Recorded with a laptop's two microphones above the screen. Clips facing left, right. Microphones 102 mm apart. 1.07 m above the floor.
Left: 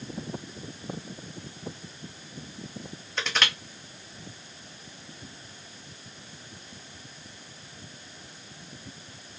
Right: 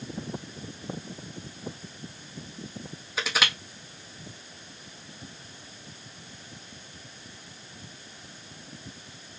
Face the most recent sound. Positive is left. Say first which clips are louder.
# right 1 dB
turn(degrees=-5)  # may be behind; listen again after turning